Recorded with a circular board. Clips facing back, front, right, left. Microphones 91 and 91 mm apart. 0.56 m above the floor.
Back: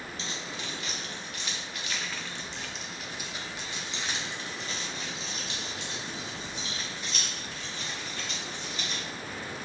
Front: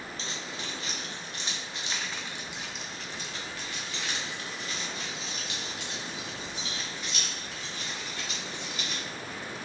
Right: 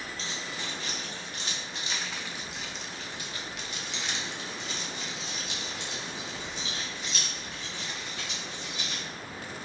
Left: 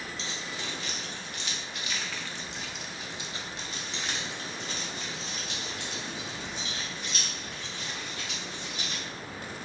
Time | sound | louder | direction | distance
0.2 | keys jangling | back 1 dB, even | 50° right | 1.5 m